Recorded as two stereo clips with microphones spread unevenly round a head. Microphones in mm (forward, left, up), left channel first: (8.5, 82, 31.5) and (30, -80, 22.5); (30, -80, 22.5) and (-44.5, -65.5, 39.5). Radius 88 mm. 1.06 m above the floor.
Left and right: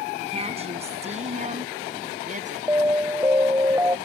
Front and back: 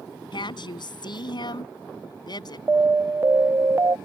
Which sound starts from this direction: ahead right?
A woman speaking, at 0.3 s.